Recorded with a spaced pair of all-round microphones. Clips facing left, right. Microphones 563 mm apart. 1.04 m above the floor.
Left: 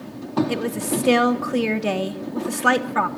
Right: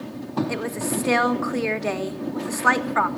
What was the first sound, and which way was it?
A woman speaking, 50° left (ahead or behind).